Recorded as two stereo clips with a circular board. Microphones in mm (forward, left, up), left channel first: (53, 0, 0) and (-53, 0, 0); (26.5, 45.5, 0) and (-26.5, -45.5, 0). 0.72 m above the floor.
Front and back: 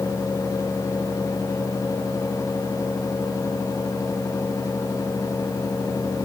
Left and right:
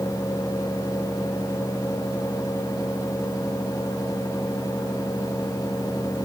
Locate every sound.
Only background noise.